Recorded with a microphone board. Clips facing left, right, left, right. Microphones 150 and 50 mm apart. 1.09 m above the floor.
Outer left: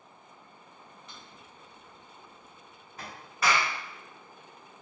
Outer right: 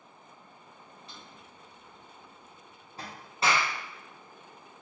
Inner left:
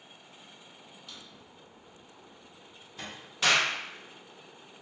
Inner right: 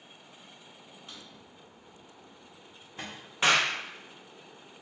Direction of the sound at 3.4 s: 25° right (ahead or behind).